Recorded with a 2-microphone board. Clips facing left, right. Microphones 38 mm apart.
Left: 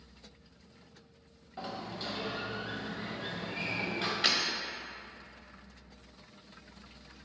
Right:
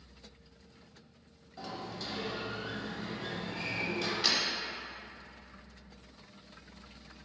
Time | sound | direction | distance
1.6 | a sliding door | 25° left (ahead or behind) | 0.6 m
4.2 | breaking glass | 35° left (ahead or behind) | 0.7 m